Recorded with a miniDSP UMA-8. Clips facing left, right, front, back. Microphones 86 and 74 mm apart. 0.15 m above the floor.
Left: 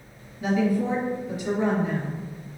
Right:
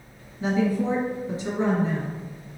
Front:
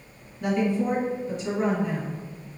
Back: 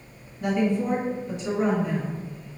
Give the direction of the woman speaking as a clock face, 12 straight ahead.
3 o'clock.